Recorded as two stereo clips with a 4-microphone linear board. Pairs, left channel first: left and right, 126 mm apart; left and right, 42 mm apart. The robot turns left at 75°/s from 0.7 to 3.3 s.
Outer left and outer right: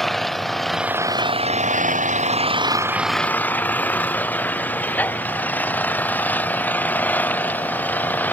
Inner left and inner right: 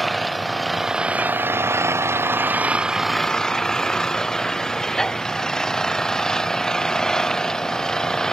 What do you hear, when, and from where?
0.0 s an engine running: straight ahead; by 8.3 s 165° left